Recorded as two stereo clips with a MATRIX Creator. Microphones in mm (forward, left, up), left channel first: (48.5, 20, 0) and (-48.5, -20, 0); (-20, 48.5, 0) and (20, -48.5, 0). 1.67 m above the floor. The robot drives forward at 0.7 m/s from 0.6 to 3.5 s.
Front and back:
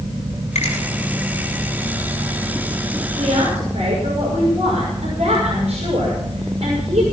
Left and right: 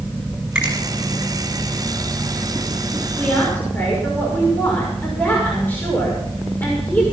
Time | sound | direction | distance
0.6 | a finger snap | 15° left | 6.5 m
3.2 | a woman speaking | 175° right | 5.5 m